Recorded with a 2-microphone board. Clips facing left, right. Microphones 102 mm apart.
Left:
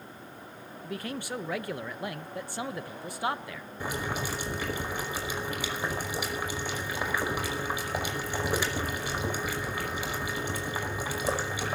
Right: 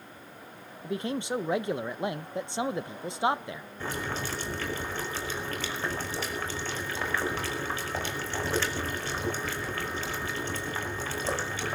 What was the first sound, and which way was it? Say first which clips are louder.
A man speaking: right 5 dB; 25° right (ahead or behind).